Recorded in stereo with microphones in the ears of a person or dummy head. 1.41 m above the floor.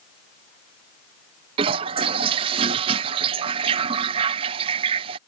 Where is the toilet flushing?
35° right (ahead or behind).